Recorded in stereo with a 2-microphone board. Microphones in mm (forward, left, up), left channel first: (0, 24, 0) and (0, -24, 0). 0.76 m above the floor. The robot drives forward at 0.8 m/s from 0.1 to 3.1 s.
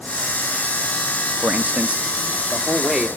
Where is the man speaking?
35° right (ahead or behind), 0.7 m; by 3.1 s 15° right (ahead or behind), 1.7 m.